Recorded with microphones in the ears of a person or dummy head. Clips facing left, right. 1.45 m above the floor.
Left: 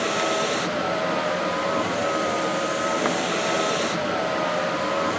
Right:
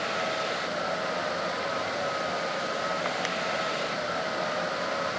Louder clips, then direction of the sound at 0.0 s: Left 7 dB; 85° left.